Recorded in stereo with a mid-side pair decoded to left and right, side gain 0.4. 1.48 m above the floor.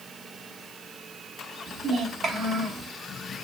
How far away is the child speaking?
About 1.7 m.